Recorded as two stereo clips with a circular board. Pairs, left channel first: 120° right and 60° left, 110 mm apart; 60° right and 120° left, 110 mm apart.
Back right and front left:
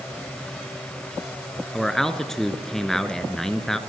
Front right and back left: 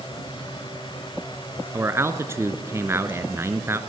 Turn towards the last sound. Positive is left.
turn(degrees=155)